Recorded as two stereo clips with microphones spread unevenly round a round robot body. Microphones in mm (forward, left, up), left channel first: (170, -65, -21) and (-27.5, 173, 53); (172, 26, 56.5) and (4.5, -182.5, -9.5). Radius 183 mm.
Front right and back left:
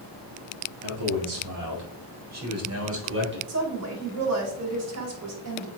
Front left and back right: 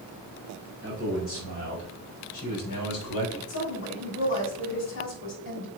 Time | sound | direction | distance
0.8 | a man speaking | 115° left | 4.5 m
3.5 | a woman speaking | 90° left | 3.5 m